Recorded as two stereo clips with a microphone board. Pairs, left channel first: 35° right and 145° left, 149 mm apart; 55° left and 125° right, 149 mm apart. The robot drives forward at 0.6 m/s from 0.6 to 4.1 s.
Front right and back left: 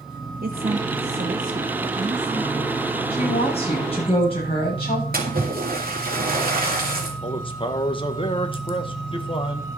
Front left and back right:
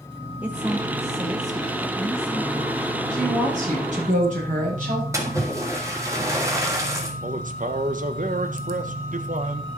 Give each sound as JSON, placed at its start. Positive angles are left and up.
{"t": 0.4, "sound": "a woman speaking", "azimuth_deg": 155, "distance_m": 0.9}
{"t": 3.1, "sound": "a woman speaking", "azimuth_deg": -85, "distance_m": 7.5}
{"t": 5.1, "sound": "a splash", "azimuth_deg": 165, "distance_m": 2.0}
{"t": 7.2, "sound": "a man speaking", "azimuth_deg": -90, "distance_m": 1.3}